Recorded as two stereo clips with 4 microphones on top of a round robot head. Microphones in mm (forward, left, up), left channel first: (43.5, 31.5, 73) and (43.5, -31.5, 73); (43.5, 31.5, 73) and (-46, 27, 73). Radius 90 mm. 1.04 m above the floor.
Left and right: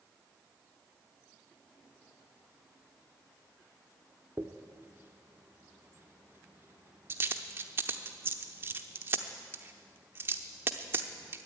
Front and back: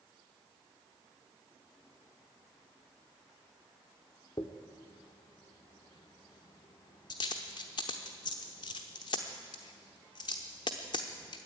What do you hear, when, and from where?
4.4 s a dropped coin: 50° right, 0.8 m